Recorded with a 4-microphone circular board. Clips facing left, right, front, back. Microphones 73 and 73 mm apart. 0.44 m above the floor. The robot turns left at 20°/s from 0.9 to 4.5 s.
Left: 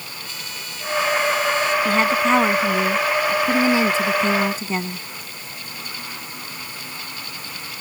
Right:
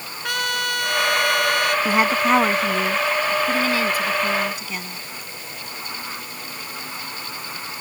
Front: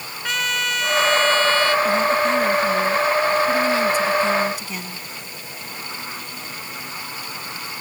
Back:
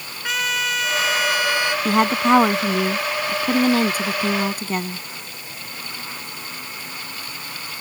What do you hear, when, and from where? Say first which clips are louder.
0.2 s a trumpet: right 16 dB, even; 95° right; by 1.8 s 110° right
1.9 s a woman speaking: even, back 1 dB; 165° right; by 5.0 s 140° left